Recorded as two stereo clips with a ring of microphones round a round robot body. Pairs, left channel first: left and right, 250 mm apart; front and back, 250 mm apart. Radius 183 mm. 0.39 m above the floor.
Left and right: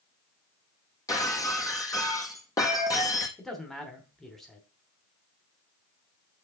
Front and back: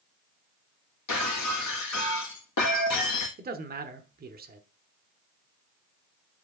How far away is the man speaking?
About 1.1 m.